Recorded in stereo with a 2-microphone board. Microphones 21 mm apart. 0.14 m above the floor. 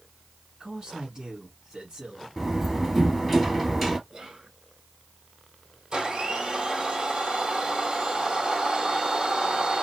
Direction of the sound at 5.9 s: 40° right (ahead or behind).